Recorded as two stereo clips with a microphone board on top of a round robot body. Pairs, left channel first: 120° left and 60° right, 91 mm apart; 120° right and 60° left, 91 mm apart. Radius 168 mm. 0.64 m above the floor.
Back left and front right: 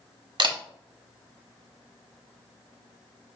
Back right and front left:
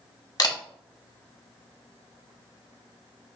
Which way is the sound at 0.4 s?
80° right.